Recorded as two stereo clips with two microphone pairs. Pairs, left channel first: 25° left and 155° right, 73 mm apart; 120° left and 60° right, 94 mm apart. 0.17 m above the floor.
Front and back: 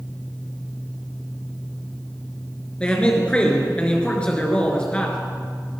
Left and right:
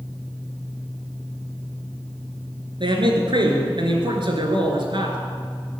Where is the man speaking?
50° right, 3 m.